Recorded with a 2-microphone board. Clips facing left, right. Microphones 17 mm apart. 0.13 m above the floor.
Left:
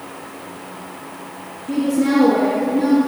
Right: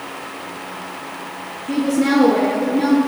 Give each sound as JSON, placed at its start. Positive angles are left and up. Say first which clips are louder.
{"t": 1.7, "sound": "a woman speaking", "louder": "even", "side_deg": -30, "distance_m": 1.6}